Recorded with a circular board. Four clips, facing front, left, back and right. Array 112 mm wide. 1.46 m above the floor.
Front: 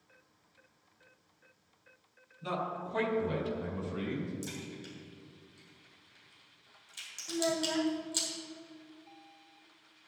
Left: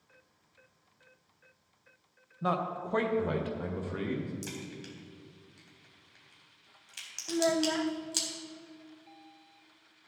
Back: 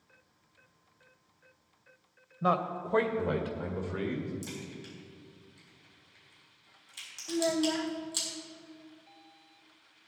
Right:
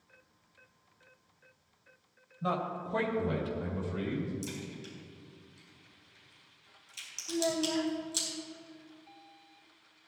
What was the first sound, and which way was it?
A man speaking, 155° left.